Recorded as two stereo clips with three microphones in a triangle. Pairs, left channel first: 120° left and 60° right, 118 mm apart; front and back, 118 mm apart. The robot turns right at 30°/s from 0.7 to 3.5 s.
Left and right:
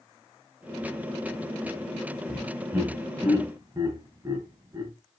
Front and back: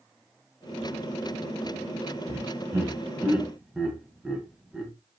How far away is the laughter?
About 1.8 m.